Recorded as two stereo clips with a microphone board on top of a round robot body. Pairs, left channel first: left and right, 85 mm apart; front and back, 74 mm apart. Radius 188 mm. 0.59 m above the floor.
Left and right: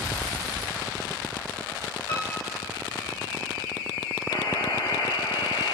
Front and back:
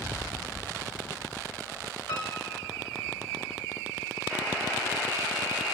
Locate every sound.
2.1 s a piano: 75° left, 3.5 m
4.3 s a buzzer: 85° left, 2.5 m